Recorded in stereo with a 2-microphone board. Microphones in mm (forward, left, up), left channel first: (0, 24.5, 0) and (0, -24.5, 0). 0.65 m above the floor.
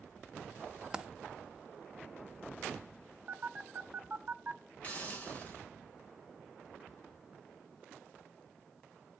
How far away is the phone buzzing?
About 0.7 m.